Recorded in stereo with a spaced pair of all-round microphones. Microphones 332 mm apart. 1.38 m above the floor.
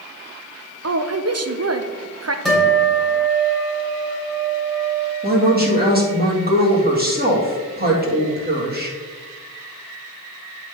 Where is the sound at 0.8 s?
50° right (ahead or behind), 0.6 m.